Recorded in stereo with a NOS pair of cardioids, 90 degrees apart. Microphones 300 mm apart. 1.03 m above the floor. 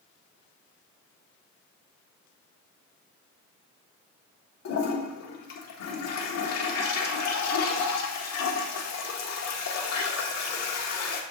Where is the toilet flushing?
60° left, 1.7 m.